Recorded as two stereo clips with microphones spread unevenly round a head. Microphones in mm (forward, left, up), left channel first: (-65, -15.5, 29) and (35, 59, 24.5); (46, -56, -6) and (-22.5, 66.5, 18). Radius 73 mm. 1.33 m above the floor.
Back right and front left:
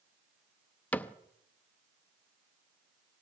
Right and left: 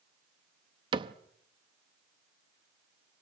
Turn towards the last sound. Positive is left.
turn(degrees=145)